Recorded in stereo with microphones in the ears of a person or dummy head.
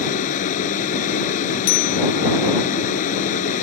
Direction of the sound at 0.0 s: 45° left (ahead or behind).